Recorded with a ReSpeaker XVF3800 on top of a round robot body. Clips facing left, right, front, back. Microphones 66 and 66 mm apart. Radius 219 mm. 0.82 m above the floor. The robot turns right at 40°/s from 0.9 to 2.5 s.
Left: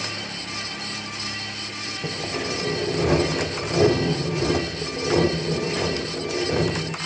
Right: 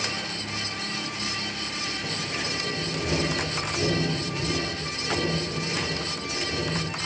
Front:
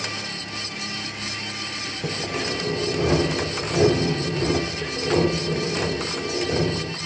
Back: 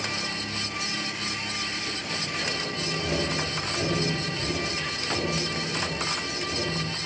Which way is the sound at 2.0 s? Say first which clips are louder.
Left 3 dB, front 7 dB; 30° left.